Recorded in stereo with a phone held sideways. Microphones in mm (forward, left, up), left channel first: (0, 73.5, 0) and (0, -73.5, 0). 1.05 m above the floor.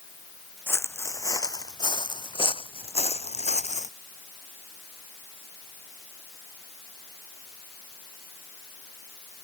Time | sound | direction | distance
0.7 | footsteps | 15° left (ahead or behind) | ?